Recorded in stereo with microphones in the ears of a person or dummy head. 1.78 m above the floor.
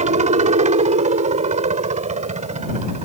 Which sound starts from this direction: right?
A helicopter, at 0.0 s.